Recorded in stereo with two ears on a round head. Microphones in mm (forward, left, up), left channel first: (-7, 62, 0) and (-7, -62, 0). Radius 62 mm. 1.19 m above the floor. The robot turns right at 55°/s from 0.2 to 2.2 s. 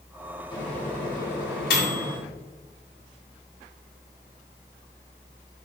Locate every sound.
0.5 s a microwave: 30° left (ahead or behind), 1.6 m; by 2.2 s 55° left (ahead or behind), 1.6 m